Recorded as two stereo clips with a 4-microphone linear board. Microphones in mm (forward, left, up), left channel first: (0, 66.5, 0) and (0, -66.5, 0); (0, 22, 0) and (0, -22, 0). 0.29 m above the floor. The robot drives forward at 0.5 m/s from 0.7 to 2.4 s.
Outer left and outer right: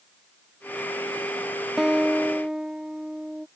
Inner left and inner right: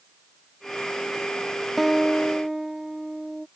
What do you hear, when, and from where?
1.8 s a guitar: 5° right (ahead or behind)